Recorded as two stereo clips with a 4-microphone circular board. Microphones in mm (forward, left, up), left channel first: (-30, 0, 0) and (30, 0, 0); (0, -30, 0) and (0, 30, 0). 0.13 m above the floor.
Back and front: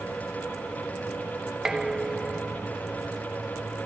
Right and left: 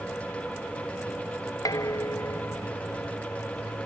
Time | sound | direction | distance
1.6 | dishes clattering | 80° right | ?